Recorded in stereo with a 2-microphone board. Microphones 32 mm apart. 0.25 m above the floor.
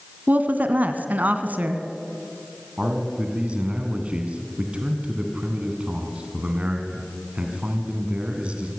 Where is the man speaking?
35° right (ahead or behind), 3 m.